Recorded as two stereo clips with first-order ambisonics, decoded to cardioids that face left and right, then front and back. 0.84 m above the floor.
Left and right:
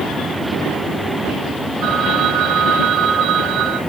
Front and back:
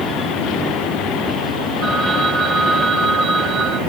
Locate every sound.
1.8 s a phone ringing: 140° right, 3.5 m